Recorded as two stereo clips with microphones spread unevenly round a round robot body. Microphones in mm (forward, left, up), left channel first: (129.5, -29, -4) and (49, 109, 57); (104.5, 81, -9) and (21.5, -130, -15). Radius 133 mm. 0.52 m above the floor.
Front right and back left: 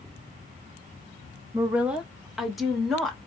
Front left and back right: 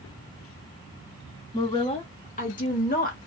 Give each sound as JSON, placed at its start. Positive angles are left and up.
{"t": 1.5, "sound": "a woman speaking", "azimuth_deg": 5, "distance_m": 0.7}